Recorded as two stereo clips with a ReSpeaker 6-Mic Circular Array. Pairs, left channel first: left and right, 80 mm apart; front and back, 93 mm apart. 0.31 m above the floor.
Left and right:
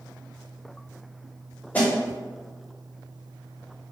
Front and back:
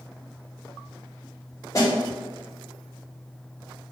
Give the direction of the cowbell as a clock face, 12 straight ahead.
I don't hear a cowbell.